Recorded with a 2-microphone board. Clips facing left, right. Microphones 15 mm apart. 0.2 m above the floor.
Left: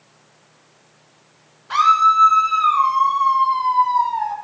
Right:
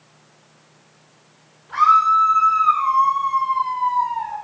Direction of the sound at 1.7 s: 60° left (ahead or behind).